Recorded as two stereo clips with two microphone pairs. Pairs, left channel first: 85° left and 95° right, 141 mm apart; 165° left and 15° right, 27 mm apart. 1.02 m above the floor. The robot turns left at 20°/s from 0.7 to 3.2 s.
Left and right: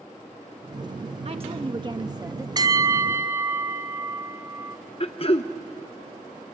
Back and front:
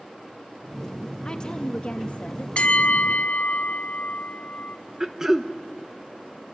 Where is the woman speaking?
140° right, 1.1 m; by 2.5 s 165° right, 1.1 m.